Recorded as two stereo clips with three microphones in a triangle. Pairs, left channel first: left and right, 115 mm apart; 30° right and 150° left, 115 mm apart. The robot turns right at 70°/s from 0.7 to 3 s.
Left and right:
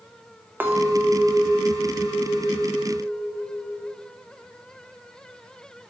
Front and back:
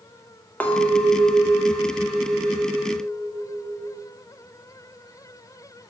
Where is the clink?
75° right, 0.8 m; by 4.0 s 90° left, 0.8 m.